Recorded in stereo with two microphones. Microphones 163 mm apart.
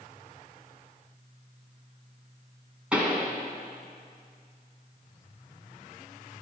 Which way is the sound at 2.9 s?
10° right (ahead or behind).